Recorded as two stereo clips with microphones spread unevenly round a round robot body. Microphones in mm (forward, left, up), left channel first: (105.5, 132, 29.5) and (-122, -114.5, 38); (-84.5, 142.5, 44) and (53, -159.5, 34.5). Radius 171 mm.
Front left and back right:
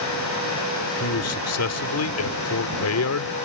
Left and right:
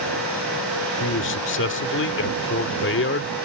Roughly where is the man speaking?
Left.